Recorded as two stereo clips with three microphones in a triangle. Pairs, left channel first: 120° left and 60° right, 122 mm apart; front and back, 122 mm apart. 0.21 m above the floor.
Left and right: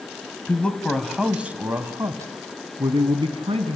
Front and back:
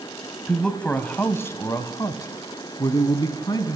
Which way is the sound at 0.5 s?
80° left.